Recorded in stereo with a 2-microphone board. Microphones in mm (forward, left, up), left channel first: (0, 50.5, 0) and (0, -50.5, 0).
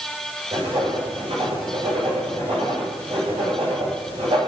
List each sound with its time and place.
0.5 s writing: 60° right (ahead or behind), 9 m